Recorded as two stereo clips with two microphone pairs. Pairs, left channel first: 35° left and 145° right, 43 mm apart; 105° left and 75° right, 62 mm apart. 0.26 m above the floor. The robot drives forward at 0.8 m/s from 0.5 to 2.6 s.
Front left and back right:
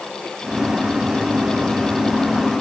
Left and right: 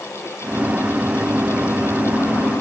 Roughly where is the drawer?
I don't hear a drawer.